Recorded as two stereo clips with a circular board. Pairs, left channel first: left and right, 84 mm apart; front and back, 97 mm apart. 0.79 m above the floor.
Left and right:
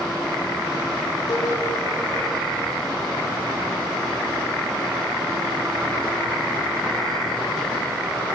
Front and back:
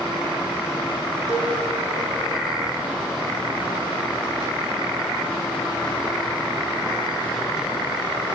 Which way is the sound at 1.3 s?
55° left.